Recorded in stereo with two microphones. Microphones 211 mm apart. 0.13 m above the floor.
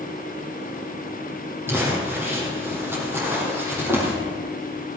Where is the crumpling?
10° right (ahead or behind), 5.5 m.